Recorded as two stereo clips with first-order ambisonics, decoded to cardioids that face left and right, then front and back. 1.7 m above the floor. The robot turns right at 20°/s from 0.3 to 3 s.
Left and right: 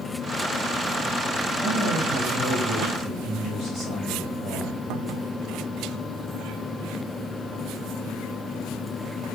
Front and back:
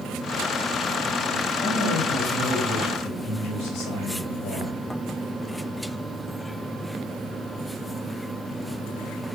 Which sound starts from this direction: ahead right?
A man speaking, at 1.6 s.